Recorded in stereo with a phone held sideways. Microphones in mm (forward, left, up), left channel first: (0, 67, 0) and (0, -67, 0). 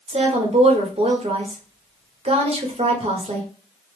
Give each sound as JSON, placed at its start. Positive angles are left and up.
{"t": 0.1, "sound": "a woman speaking", "side_deg": -50, "distance_m": 1.0}